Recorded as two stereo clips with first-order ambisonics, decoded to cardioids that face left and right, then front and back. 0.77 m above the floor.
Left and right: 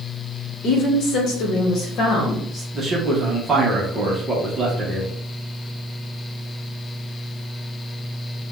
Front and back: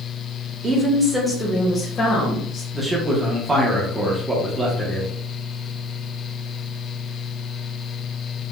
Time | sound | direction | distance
0.6 | a woman speaking | 125° left | 1.0 m
2.7 | a man speaking | 130° right | 0.9 m